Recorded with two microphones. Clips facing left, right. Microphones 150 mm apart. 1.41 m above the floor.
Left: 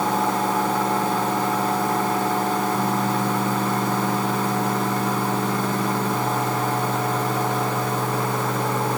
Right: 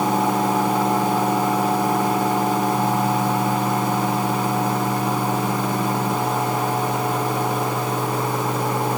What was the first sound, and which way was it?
Only background noise.